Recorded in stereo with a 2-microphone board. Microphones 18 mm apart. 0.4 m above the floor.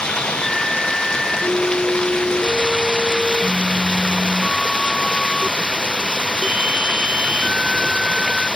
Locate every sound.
0.0 s running water: 55° left (ahead or behind)